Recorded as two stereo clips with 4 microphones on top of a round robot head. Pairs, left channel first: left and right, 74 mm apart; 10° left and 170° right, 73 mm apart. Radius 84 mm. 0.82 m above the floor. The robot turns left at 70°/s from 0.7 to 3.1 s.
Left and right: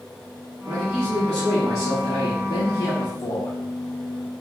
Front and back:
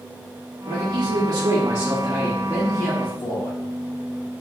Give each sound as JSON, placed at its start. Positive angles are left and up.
{"t": 0.7, "sound": "a man speaking", "azimuth_deg": -145, "distance_m": 1.1}